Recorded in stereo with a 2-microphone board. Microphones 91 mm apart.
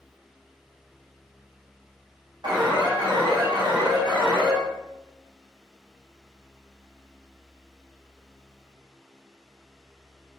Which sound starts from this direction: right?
An alarm, at 2.4 s.